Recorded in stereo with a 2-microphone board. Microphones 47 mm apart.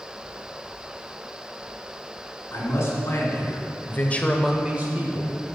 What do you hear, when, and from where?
2.5 s a man speaking: 60° left (ahead or behind), 3.5 m; by 5.3 s 60° right (ahead or behind), 1.5 m